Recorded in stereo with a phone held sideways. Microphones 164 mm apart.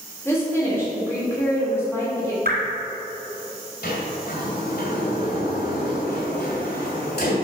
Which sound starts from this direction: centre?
A woman speaking, at 0.2 s.